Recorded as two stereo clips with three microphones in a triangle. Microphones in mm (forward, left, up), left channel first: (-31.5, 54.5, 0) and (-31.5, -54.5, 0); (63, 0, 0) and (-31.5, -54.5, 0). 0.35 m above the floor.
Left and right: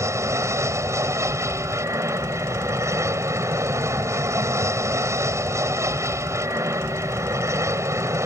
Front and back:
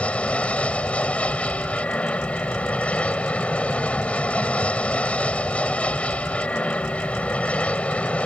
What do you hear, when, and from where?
0.0 s an aircraft: 40° right